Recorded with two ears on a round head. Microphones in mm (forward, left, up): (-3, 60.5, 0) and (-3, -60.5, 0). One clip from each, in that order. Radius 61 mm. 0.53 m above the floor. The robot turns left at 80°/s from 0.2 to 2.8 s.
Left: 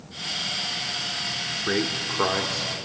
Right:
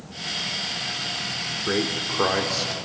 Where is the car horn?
I don't hear a car horn.